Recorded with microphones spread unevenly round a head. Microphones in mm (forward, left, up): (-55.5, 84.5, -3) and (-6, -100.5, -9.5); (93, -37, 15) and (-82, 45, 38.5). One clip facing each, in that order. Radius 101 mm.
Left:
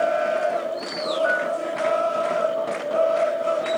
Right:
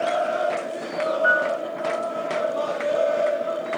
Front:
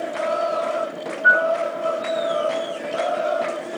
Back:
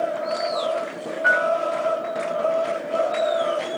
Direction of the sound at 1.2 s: 150° right.